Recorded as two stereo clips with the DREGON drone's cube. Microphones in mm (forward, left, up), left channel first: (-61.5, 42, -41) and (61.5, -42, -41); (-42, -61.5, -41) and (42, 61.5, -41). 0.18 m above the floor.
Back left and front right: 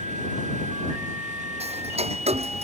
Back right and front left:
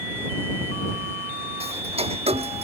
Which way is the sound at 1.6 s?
10° left.